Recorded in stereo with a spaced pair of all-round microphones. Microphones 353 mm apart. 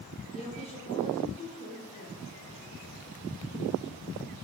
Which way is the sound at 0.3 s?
15° left (ahead or behind).